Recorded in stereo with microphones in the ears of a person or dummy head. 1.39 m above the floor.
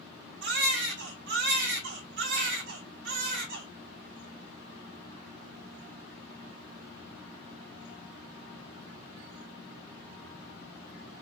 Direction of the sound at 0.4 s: 65° right (ahead or behind).